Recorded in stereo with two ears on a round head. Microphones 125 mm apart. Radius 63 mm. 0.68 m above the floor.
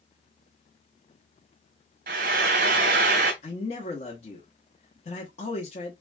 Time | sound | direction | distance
2.1 | frying | 65° right (ahead or behind) | 2 m
3.4 | a man speaking | 50° left (ahead or behind) | 1.3 m